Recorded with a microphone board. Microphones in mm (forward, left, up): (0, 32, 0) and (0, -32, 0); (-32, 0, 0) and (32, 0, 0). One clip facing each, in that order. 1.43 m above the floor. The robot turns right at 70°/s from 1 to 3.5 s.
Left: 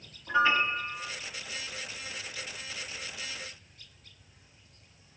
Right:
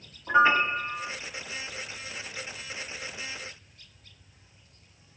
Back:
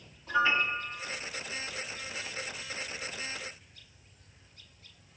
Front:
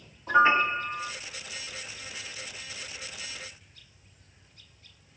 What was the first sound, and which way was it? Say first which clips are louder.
A piano: right 4 dB, front 6 dB; 40° right.